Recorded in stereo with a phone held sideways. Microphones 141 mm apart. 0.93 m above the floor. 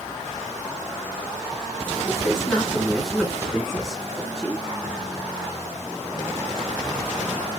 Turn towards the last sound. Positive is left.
turn(degrees=5)  # may be behind; listen again after turning